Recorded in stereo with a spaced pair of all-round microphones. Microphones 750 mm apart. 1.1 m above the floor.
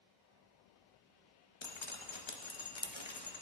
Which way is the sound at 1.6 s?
40° left (ahead or behind).